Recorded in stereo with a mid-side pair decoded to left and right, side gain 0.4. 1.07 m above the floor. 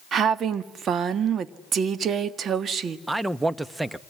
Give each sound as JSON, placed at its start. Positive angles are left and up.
{"t": 0.1, "sound": "a woman speaking", "azimuth_deg": -65, "distance_m": 1.8}
{"t": 3.1, "sound": "a man speaking", "azimuth_deg": -20, "distance_m": 1.2}